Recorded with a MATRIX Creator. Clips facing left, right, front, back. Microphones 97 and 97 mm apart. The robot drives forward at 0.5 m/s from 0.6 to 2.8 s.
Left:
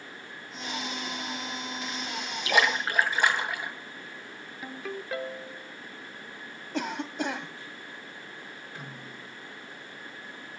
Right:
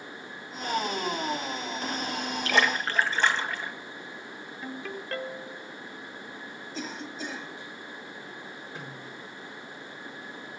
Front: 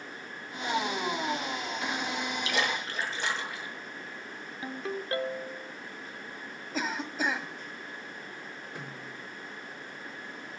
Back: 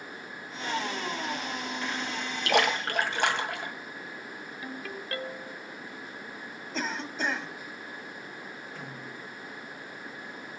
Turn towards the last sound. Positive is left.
turn(degrees=-20)